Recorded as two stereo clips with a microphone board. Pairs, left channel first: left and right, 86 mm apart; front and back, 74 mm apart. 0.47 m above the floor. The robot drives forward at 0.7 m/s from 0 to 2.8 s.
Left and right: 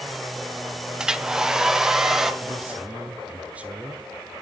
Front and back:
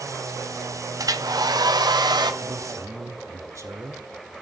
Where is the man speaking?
155° right, 1.5 m; by 4.1 s 160° right, 1.6 m.